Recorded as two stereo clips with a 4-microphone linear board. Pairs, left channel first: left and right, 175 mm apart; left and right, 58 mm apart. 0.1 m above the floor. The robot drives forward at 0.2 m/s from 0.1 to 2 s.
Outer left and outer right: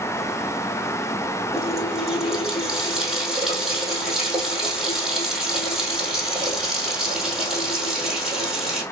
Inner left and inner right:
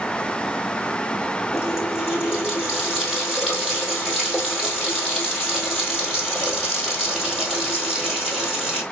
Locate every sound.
1.5 s a running tap: centre (ahead or behind), 1.7 m